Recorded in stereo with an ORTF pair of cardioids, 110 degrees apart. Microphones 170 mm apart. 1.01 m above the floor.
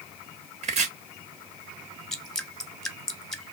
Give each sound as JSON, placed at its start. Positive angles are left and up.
{"t": 0.6, "sound": "chopping", "azimuth_deg": -45, "distance_m": 1.5}
{"t": 2.1, "sound": "dripping", "azimuth_deg": 5, "distance_m": 0.7}